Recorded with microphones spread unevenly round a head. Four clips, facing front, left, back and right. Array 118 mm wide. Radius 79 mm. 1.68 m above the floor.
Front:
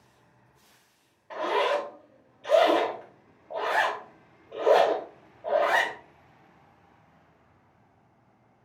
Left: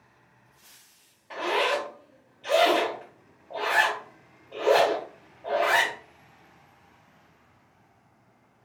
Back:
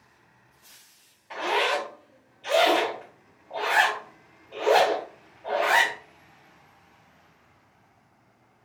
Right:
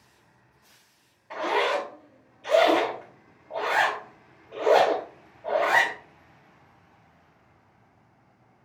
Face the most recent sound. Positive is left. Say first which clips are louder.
# right 1 dB, even
turn(degrees=20)